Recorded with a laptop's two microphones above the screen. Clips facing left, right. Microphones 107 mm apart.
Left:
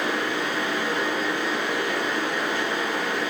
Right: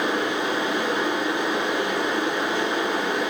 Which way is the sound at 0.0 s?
20° right (ahead or behind).